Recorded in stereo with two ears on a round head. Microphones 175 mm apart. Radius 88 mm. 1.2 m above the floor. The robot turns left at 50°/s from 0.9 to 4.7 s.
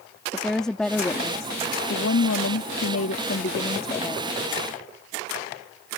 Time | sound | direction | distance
0.3 | a woman speaking | 175° left | ?